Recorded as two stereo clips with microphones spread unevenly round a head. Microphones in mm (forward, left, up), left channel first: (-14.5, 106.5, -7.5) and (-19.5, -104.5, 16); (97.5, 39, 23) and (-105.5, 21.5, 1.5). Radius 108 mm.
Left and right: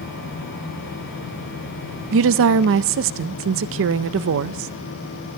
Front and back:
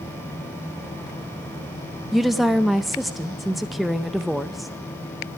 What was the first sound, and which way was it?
A woman speaking, 90° right.